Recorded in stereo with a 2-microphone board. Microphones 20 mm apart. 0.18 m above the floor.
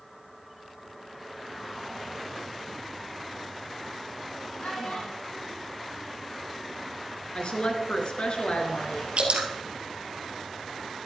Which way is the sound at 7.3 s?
55° left (ahead or behind).